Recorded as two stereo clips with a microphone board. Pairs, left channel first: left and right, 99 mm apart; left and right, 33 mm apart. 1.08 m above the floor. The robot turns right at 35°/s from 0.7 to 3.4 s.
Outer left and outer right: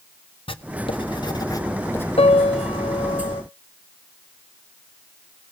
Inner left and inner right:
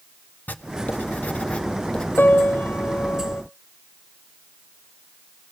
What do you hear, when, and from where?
0.5 s writing: 65° left (ahead or behind), 0.9 m; by 2.1 s 20° left (ahead or behind), 0.9 m
2.2 s a piano: 80° left, 0.8 m; by 3.4 s 125° left, 0.8 m